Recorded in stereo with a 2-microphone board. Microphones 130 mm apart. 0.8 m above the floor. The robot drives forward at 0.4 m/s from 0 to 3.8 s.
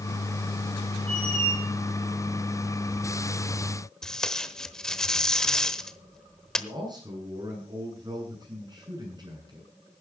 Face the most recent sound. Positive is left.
turn(degrees=-35)  # may be behind; listen again after turning